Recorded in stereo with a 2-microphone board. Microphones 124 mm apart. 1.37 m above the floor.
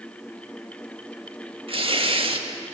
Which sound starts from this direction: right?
Tearing paper, at 1.7 s.